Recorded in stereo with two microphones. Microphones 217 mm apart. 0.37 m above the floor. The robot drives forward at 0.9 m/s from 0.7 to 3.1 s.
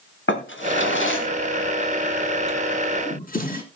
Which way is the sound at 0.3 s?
70° left (ahead or behind).